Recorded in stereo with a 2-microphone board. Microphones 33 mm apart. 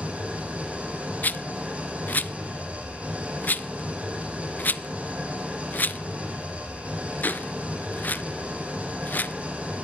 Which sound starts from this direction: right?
An engine running, at 0.0 s.